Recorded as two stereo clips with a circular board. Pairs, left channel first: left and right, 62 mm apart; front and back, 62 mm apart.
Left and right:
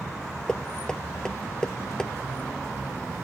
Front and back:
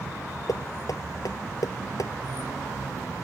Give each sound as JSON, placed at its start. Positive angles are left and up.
{"t": 0.5, "sound": "knocking", "azimuth_deg": 10}